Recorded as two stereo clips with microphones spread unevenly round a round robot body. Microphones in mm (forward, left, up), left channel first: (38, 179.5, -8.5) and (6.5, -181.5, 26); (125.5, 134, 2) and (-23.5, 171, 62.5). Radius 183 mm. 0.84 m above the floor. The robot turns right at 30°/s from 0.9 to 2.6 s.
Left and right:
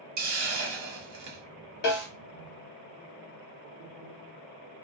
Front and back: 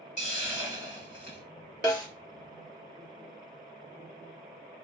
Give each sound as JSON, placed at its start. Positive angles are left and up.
{"t": 0.2, "sound": "a hiss", "azimuth_deg": -60, "distance_m": 1.2}
{"t": 1.8, "sound": "a snare drum", "azimuth_deg": 55, "distance_m": 2.0}